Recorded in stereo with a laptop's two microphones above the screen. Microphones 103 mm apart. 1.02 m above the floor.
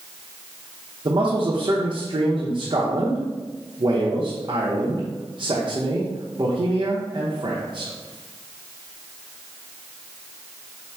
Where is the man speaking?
50° right (ahead or behind), 0.8 m.